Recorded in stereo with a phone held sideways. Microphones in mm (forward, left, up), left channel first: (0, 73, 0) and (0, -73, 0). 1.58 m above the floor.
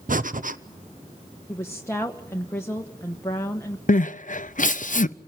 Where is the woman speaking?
15° left (ahead or behind), 1.2 m.